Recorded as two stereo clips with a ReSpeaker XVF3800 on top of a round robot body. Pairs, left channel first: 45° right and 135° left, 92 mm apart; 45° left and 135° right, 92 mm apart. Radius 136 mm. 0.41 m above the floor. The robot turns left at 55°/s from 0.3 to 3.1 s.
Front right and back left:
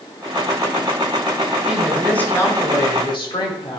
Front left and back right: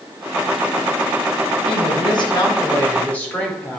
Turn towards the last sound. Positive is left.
turn(degrees=-25)